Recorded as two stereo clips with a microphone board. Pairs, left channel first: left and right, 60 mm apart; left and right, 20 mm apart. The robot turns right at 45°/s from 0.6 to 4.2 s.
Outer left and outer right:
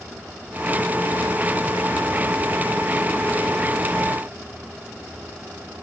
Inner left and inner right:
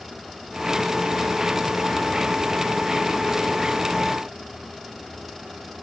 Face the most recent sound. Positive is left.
No sound to turn to.